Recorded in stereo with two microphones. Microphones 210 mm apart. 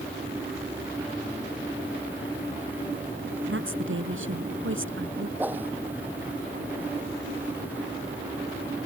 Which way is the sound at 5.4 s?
10° right (ahead or behind).